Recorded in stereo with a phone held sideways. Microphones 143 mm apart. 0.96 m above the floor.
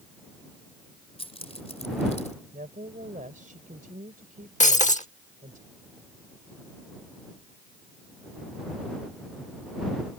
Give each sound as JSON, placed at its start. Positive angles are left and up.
{"t": 1.2, "sound": "keys jangling", "side_deg": 45}
{"t": 2.5, "sound": "a woman speaking", "side_deg": -80}
{"t": 4.6, "sound": "breaking glass", "side_deg": 60}